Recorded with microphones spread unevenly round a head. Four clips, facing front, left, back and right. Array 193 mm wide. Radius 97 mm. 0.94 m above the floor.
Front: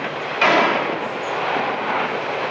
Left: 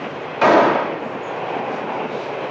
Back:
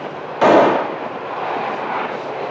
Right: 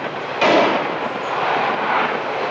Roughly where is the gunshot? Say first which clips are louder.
Left 2 dB, back 6 dB; behind.